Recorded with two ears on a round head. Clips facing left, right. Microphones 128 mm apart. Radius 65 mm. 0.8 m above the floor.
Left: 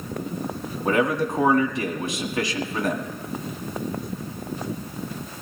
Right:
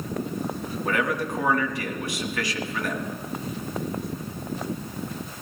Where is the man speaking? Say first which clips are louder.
Left 5 dB; 20° left (ahead or behind), 1.6 m.